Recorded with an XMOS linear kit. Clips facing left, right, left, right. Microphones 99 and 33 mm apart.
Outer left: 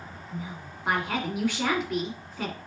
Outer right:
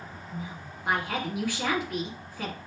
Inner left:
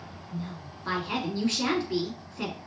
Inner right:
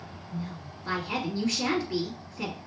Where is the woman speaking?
25° left (ahead or behind), 1.4 m.